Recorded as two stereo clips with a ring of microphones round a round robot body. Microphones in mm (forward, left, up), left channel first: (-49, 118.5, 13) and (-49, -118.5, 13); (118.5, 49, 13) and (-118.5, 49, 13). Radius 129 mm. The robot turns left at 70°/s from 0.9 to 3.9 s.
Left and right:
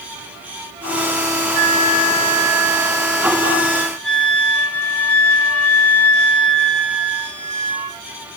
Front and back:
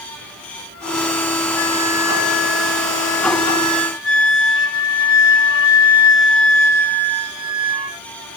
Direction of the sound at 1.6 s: 145° right.